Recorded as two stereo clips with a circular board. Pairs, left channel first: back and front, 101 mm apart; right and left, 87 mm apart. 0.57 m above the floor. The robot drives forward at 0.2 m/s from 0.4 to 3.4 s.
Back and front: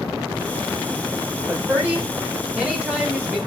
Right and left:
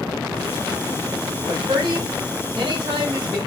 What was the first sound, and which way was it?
A woman speaking, 75° left.